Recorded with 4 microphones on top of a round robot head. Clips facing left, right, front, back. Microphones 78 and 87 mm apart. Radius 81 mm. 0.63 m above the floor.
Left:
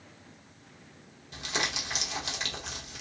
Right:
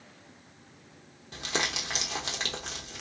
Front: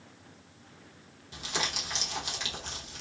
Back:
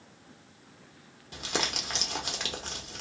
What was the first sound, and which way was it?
Crumpling, 135° right.